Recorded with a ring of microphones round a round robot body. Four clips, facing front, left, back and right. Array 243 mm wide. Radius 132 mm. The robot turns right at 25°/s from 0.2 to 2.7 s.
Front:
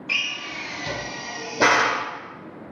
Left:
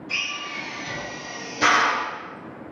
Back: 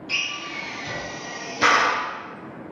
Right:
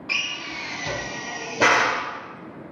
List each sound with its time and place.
0.1 s a drill: 75° right, 1.0 m; by 2.0 s 25° right, 1.0 m